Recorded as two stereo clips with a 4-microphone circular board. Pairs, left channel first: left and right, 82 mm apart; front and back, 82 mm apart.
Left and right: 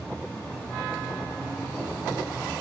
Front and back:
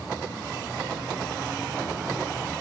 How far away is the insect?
About 1.6 m.